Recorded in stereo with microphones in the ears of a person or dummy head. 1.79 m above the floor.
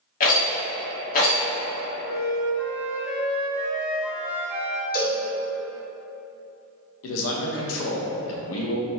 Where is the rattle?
50° left (ahead or behind), 1.2 m.